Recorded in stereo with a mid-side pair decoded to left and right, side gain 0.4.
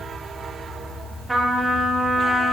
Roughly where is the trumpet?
Ahead.